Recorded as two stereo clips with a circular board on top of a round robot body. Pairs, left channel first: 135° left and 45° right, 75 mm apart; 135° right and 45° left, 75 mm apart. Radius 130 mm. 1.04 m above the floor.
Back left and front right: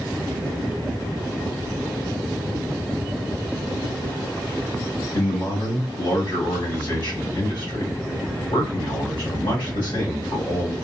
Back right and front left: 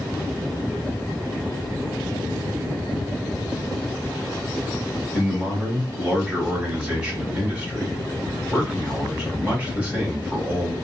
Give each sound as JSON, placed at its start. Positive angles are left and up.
{"t": 5.1, "sound": "a man speaking", "azimuth_deg": 125, "distance_m": 2.5}